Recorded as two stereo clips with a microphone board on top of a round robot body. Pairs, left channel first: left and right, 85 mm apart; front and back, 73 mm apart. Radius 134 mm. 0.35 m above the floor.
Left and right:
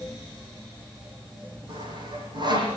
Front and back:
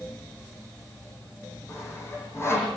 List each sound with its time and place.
1.7 s sawing: 55° right, 8 m